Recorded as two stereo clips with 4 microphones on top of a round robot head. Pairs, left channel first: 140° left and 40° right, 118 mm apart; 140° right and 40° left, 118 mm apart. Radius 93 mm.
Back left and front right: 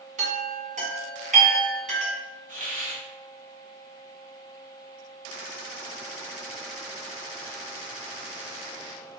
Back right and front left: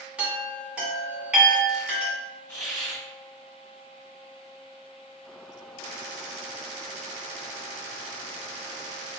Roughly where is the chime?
Ahead right.